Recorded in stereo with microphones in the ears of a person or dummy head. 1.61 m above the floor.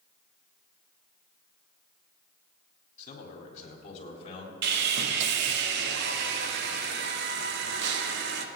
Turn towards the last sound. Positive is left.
turn(degrees=-75)  # may be behind; listen again after turning